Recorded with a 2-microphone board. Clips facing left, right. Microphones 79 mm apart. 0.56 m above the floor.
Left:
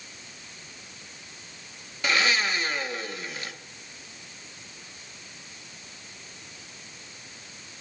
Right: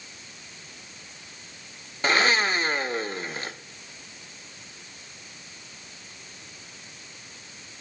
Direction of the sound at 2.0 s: 40° right (ahead or behind).